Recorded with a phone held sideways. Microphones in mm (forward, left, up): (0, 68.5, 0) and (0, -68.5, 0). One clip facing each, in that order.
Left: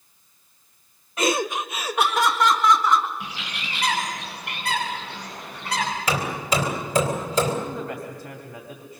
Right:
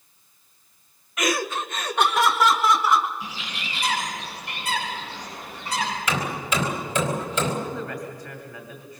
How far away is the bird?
About 8.5 m.